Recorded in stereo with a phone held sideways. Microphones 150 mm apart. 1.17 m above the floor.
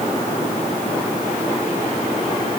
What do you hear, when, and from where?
Only background noise.